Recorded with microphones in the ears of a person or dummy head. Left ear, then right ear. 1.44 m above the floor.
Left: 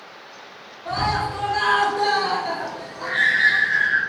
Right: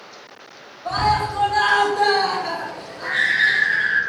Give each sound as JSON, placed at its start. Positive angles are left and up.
{"t": 0.8, "sound": "a scream", "side_deg": -50, "distance_m": 1.2}